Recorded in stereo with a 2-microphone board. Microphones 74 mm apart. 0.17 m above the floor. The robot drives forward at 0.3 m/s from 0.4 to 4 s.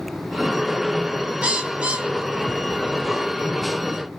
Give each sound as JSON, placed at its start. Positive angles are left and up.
{"t": 1.4, "sound": "a bird", "side_deg": -15, "distance_m": 0.9}